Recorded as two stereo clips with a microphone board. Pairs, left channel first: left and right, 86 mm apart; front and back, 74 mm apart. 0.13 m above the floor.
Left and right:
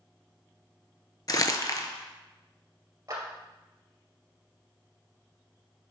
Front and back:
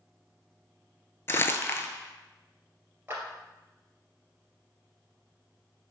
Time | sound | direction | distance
1.3 | crumpling | 50° left | 0.6 m
3.1 | a clap | 125° right | 2 m